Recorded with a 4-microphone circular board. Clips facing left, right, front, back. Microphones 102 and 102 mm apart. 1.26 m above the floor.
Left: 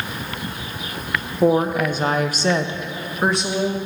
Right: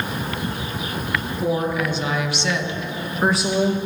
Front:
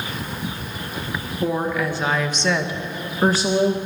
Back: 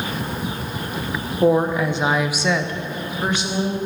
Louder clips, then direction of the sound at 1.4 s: Left 6 dB, back 6 dB; 120° left.